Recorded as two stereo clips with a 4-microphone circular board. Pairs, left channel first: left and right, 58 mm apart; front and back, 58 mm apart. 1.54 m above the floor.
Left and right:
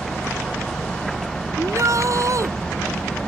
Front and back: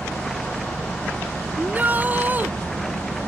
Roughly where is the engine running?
Behind right.